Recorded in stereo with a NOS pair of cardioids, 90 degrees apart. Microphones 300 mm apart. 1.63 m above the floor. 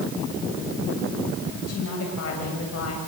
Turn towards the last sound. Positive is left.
turn(degrees=55)